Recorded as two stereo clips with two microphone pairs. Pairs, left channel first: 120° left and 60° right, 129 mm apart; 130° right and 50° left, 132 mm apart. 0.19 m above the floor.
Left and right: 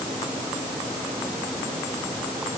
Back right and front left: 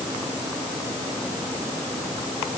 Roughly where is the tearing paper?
I don't hear tearing paper.